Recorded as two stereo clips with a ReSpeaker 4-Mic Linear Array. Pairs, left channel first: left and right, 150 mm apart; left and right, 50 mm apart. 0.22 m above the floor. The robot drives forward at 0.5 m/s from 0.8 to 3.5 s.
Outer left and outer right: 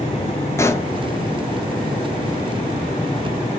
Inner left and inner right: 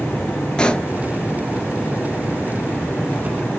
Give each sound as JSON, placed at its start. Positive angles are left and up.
{"t": 0.6, "sound": "a pop", "side_deg": 20, "distance_m": 0.6}